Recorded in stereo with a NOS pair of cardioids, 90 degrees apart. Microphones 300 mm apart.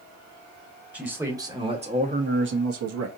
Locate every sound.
0.9 s a man speaking: 5° right, 1.9 m; by 3.1 s 70° right, 1.2 m